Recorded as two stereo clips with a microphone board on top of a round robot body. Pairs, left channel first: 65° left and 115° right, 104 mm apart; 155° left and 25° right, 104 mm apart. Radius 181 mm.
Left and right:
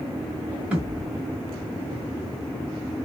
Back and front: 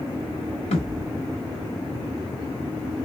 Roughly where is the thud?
Behind.